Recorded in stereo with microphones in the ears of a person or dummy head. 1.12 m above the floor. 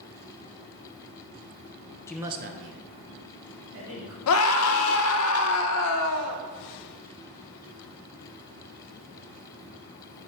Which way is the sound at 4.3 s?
80° left.